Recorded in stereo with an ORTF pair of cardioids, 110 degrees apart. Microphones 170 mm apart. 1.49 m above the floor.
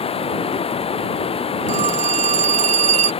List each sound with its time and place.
0.0 s running water: 35° left
1.7 s a phone ringing: 45° right